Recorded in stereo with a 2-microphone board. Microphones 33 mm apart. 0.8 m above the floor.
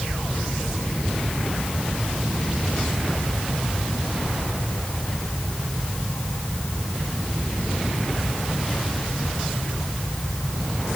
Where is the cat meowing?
No cat meowing in this recording.